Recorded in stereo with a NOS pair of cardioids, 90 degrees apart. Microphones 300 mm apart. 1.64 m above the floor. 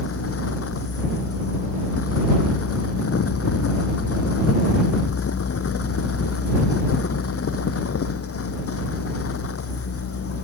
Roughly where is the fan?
Ahead left.